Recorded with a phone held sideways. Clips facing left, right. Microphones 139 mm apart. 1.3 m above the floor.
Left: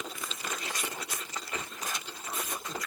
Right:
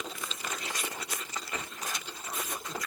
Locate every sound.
Only background noise.